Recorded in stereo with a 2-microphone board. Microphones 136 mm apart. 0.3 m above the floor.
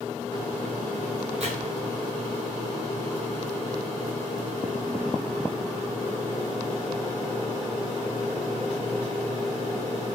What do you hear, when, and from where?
1.4 s chopping: 55° right (ahead or behind), 1.8 m